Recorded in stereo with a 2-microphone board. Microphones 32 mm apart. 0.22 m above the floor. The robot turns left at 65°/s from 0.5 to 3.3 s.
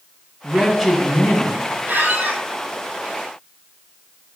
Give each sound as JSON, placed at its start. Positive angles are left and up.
{"t": 0.4, "sound": "a man speaking", "azimuth_deg": -165, "distance_m": 1.5}
{"t": 1.9, "sound": "a squeak", "azimuth_deg": -85, "distance_m": 1.3}